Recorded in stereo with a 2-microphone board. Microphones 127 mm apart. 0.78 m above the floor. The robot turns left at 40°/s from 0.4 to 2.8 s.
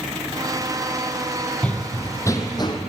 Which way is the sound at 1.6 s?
10° left (ahead or behind).